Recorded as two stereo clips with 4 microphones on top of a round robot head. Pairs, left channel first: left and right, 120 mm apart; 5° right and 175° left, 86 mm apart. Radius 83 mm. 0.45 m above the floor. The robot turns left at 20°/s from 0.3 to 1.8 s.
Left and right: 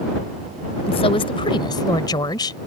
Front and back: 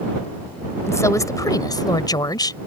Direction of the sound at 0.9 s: 50° left.